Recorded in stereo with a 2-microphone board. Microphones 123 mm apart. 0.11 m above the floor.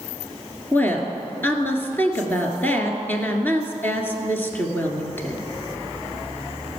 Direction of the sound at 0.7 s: 15° left (ahead or behind).